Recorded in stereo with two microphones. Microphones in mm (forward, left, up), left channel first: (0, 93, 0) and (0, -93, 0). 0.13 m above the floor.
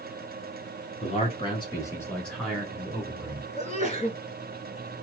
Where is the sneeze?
35° left (ahead or behind), 1.2 m.